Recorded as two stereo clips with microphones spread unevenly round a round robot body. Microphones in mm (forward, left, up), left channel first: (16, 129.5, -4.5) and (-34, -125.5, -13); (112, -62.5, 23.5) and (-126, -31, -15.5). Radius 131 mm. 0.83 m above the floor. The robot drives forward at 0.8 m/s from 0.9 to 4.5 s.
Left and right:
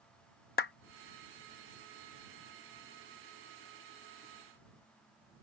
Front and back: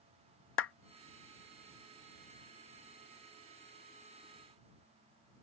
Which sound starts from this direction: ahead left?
A clap, at 0.6 s.